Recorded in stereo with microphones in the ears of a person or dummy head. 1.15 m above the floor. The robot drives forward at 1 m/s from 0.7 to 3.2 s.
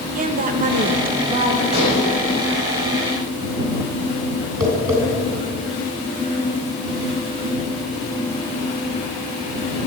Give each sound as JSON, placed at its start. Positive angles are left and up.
{"t": 0.1, "sound": "a woman speaking", "side_deg": -45, "distance_m": 1.1}
{"t": 1.7, "sound": "dishes clattering", "side_deg": -35, "distance_m": 3.5}
{"t": 4.6, "sound": "tapping", "side_deg": -20, "distance_m": 3.0}